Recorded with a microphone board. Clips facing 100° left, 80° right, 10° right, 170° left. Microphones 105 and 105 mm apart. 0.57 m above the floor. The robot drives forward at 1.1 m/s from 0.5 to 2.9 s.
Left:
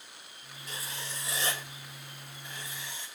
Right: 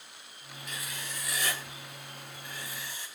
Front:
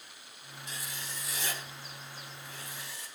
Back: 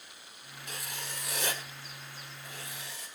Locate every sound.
0.7 s writing: 150° left, 1.8 m; by 3.1 s 170° left, 4 m